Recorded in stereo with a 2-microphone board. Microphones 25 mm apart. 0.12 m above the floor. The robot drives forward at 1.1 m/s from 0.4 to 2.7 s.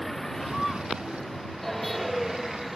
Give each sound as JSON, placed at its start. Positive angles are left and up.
{"t": 0.0, "sound": "a vehicle", "side_deg": 15}